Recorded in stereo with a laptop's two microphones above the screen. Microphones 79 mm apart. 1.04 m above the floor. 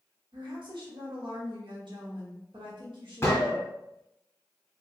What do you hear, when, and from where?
0.3 s a woman speaking: 80° right, 0.8 m
3.2 s a gunshot: 30° left (ahead or behind), 0.7 m